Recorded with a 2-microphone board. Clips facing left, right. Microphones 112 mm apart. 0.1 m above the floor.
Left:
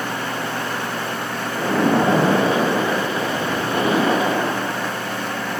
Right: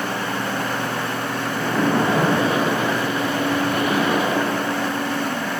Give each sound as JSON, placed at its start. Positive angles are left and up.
{"t": 1.6, "sound": "a splash", "side_deg": 30, "distance_m": 1.1}